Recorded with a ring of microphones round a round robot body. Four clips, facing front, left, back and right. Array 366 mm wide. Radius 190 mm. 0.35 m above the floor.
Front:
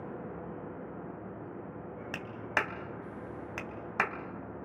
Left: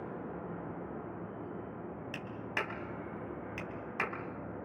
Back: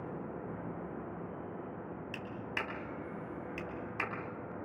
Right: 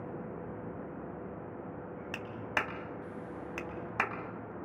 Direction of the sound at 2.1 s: 25° right.